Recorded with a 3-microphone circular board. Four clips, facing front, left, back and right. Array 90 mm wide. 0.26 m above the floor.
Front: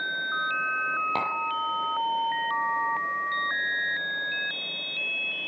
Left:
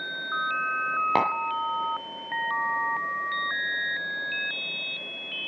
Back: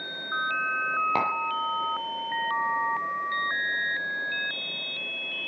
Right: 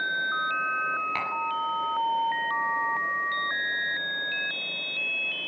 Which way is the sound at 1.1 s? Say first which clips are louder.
Left 7 dB, back 2 dB; 95° left.